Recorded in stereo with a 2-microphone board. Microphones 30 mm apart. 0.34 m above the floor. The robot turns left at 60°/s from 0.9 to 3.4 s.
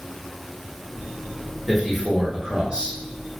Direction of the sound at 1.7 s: Straight ahead.